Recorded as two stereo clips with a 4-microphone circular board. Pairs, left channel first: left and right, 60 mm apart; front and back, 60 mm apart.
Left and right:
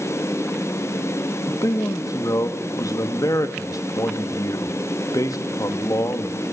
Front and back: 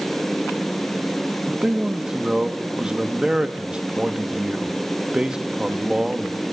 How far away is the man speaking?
About 2 m.